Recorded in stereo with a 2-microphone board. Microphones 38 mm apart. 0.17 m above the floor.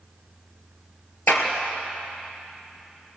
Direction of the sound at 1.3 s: 65° left (ahead or behind).